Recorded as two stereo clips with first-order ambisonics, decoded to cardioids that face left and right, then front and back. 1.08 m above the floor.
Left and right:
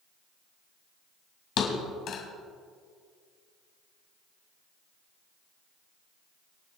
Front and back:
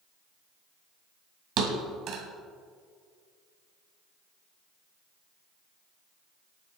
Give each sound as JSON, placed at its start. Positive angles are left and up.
{"t": 1.6, "sound": "a thud", "azimuth_deg": 135, "distance_m": 2.0}